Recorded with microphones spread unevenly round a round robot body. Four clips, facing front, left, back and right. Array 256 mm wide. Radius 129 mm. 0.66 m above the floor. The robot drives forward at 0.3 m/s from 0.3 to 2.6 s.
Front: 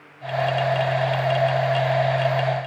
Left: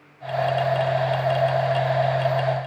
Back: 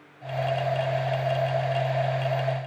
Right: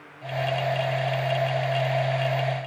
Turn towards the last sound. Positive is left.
No sound to turn to.